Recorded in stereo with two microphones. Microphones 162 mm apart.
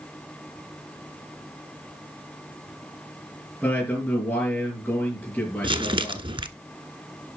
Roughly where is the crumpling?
Right.